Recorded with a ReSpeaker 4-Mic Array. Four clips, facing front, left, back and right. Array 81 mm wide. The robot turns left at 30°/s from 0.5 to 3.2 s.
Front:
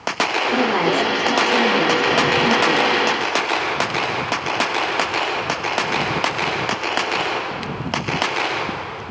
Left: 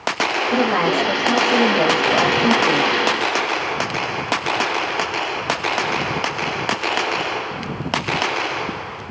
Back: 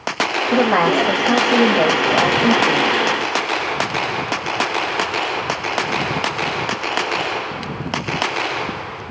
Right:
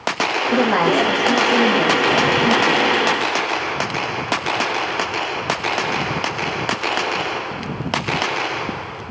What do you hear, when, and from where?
0.5 s a woman speaking: 155° right, 1.6 m; by 2.9 s 130° left, 1.6 m